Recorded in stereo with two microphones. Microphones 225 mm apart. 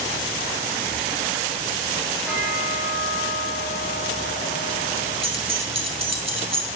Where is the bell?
5° right (ahead or behind), 3.5 m.